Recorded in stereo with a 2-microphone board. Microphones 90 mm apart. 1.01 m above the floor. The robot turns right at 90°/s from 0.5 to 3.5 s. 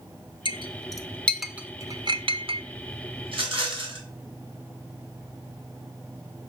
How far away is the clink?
About 0.5 m.